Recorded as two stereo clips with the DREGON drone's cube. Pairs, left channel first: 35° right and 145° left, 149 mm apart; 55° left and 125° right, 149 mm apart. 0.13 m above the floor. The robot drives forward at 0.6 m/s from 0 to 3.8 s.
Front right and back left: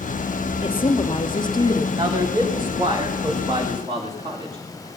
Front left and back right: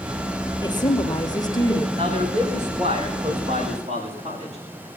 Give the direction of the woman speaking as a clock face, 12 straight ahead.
12 o'clock.